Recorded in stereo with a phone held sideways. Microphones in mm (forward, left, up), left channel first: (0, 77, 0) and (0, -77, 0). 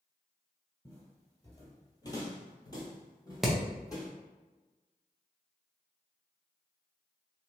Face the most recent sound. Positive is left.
turn(degrees=0)  # may be behind; listen again after turning